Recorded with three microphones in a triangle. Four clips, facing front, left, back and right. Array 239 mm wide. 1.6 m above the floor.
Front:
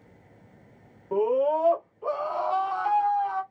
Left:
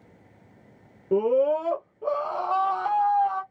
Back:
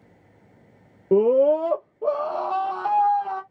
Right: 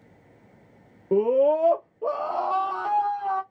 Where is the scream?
170° right, 0.7 m; by 3.4 s 145° right, 1.9 m.